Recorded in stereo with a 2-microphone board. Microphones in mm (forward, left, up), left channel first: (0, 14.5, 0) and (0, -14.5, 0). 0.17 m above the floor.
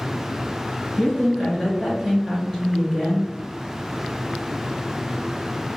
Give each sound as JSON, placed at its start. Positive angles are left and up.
{"t": 1.0, "sound": "a woman speaking", "side_deg": 20, "distance_m": 1.7}